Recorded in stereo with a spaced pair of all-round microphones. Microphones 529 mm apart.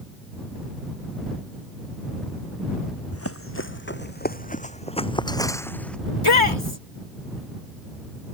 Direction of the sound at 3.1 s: 25° left (ahead or behind).